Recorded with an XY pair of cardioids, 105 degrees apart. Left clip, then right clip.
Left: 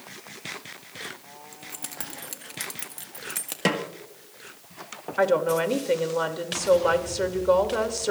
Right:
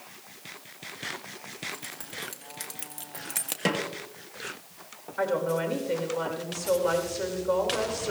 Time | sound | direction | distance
1.5 | keys jangling | 65° left | 1.8 m
3.6 | a snare drum | 25° left | 1.4 m
5.2 | a woman speaking | 45° left | 2.5 m